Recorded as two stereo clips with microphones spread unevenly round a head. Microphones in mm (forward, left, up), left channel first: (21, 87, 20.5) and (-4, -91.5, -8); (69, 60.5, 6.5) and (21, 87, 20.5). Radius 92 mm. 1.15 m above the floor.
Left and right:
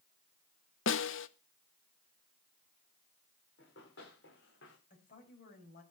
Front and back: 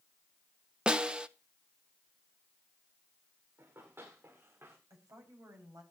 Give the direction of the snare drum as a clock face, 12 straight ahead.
10 o'clock.